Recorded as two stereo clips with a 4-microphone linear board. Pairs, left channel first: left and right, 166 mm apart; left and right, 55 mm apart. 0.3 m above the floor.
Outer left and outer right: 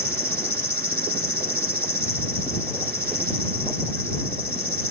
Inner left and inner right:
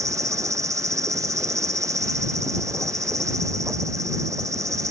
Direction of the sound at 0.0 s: 70° right (ahead or behind).